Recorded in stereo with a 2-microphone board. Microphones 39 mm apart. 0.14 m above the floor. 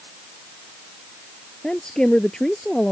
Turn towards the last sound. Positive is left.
turn(degrees=15)  # may be behind; listen again after turning